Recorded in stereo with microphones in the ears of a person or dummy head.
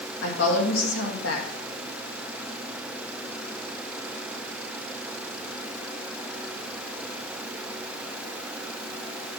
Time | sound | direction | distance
0.2 | a woman speaking | 75° left (ahead or behind) | 2 m